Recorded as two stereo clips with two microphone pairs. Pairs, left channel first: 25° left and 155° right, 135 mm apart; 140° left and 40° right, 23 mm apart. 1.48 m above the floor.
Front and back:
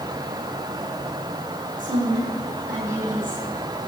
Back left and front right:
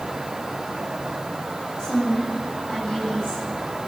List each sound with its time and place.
1.8 s a woman speaking: 160° right, 9 m